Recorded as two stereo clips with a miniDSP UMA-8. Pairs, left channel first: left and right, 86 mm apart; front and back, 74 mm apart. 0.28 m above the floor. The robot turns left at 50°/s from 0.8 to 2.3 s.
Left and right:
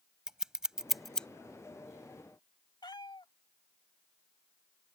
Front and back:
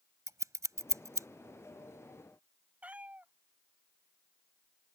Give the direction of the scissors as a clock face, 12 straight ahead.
6 o'clock.